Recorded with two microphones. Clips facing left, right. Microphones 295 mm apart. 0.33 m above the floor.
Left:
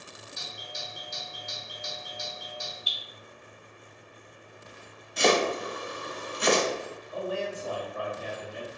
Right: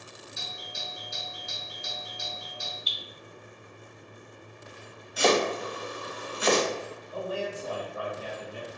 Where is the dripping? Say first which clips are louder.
Right 1 dB; 30° left (ahead or behind), 1.2 m.